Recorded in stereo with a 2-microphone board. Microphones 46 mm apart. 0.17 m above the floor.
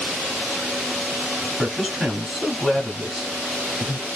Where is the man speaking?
5° right (ahead or behind), 1.2 m.